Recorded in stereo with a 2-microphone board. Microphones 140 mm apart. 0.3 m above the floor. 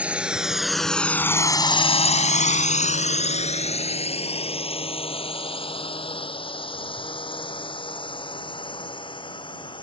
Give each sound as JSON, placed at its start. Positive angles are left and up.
{"t": 0.0, "sound": "a drone", "side_deg": -10}